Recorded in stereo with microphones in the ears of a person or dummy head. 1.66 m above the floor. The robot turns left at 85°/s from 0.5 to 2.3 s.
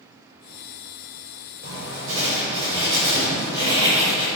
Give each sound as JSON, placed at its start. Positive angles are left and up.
{"t": 1.6, "sound": "writing", "azimuth_deg": -95, "distance_m": 6.0}